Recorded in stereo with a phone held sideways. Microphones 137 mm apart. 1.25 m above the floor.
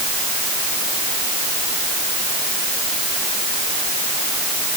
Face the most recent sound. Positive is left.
No sound to turn to.